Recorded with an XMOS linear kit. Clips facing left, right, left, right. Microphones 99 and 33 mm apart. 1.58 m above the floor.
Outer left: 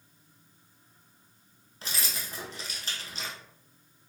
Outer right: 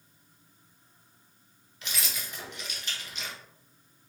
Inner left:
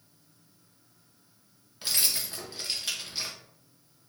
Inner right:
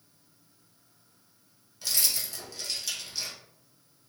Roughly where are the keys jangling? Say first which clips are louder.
Outer left 1 dB, inner left 1 dB; left.